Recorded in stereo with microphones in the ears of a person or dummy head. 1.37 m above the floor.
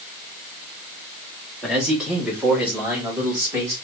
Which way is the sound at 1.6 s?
5° right (ahead or behind).